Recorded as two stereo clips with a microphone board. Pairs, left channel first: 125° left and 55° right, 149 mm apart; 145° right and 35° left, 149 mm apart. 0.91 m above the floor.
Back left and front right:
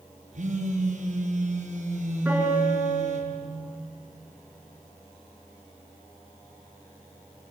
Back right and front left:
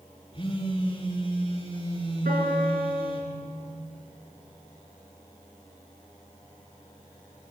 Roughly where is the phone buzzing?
Right.